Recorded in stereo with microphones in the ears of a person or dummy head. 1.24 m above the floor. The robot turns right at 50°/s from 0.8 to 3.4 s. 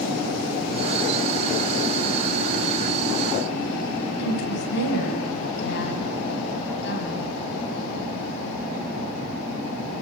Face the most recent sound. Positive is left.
turn(degrees=60)  # may be behind; listen again after turning